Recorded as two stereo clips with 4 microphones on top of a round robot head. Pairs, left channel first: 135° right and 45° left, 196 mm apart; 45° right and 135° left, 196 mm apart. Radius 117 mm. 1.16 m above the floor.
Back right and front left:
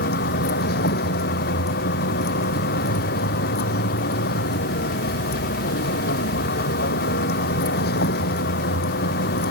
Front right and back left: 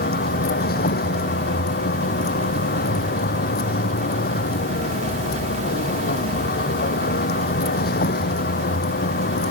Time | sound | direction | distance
0.0 | a vehicle | 90° right | ?